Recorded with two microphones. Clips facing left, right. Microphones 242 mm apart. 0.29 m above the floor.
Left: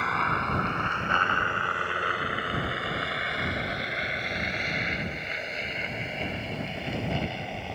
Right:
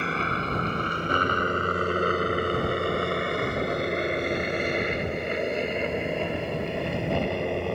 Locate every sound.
0.0 s a helicopter: 35° right (ahead or behind); by 7.8 s 70° right (ahead or behind)